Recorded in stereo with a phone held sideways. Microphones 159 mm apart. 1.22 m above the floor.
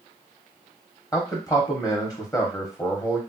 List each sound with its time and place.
1.1 s a man speaking: 20° left (ahead or behind), 0.9 m